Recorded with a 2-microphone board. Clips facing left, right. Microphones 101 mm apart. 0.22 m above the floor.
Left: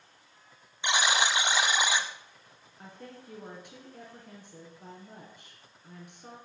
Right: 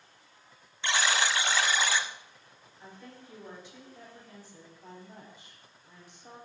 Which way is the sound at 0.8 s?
20° left (ahead or behind).